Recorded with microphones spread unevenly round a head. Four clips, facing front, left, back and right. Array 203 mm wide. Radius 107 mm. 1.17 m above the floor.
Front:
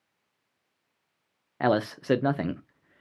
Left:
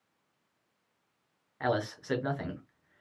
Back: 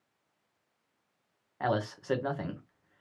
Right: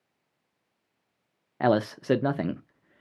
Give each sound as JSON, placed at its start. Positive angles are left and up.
{"t": 1.6, "sound": "a man speaking", "azimuth_deg": -45, "distance_m": 0.6}